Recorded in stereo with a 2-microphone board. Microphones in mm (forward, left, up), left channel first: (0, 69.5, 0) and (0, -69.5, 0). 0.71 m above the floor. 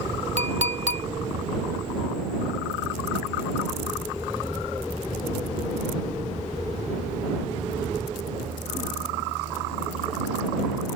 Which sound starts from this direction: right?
A clink, at 0.4 s.